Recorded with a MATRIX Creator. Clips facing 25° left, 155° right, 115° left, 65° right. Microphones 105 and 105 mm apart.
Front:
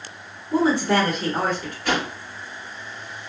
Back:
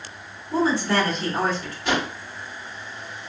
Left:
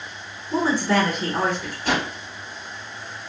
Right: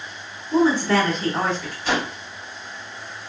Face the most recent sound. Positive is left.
turn(degrees=140)